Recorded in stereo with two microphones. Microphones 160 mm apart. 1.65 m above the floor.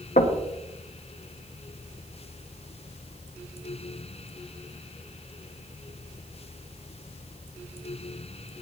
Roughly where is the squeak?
No squeak in this recording.